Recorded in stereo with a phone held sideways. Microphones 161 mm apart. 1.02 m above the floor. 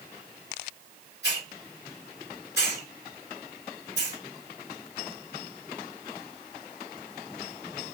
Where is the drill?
I don't hear a drill.